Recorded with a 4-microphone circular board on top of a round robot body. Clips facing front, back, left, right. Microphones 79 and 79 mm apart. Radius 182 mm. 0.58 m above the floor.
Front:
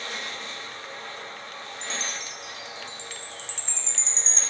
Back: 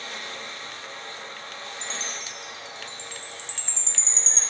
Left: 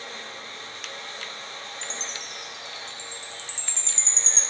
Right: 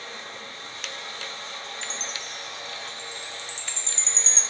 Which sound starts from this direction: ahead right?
A chime, at 1.8 s.